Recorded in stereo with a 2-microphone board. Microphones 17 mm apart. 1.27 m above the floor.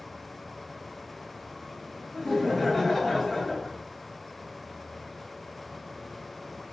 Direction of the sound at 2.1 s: 35° left (ahead or behind).